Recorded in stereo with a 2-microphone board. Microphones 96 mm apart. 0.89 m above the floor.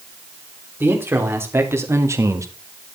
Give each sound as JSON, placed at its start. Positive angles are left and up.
{"t": 0.8, "sound": "a man speaking", "side_deg": -25, "distance_m": 3.5}